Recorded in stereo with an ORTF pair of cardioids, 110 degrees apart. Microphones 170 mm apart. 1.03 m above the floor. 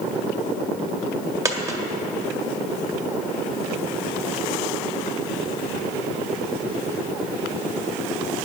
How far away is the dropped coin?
About 1.7 m.